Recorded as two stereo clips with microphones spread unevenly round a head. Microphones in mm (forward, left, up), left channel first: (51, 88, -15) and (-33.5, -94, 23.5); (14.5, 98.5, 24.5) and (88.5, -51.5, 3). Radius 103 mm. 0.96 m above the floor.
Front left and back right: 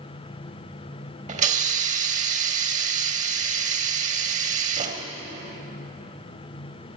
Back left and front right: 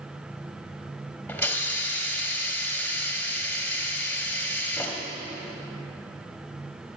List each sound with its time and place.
1.3 s a hiss: 165° right, 1.7 m